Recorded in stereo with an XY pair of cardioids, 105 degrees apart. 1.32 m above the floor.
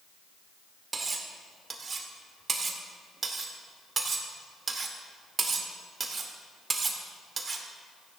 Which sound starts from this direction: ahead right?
Cutlery clinking, at 0.9 s.